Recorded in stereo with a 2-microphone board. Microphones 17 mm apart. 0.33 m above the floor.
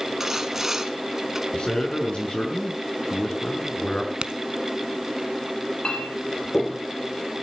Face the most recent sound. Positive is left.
turn(degrees=60)  # may be behind; listen again after turning